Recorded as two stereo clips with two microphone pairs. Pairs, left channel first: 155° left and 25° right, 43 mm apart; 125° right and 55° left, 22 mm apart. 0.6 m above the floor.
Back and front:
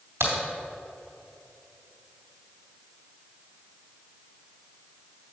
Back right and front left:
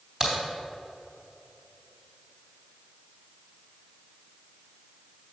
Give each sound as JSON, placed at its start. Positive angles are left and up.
{"t": 0.2, "sound": "a crack", "azimuth_deg": -5, "distance_m": 3.0}